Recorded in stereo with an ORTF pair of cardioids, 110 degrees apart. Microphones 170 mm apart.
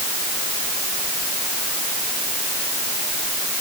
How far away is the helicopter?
No helicopter in this recording.